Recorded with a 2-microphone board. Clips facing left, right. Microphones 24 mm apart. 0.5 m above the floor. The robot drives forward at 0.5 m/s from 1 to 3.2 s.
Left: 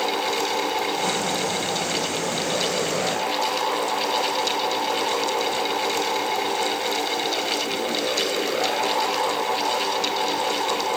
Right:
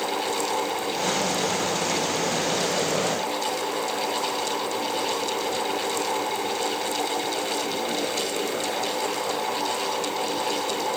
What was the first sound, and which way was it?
Only background noise.